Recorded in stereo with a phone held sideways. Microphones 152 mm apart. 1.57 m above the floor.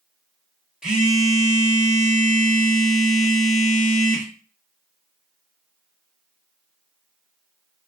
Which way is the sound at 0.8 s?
5° right (ahead or behind).